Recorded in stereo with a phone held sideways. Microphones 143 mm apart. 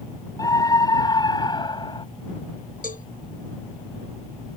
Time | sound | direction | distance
0.4 | a scream | 25° left (ahead or behind) | ?
2.8 | a cowbell | 85° left | ?